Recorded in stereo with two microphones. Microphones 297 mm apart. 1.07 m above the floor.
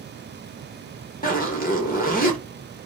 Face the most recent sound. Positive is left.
turn(degrees=30)  # may be behind; listen again after turning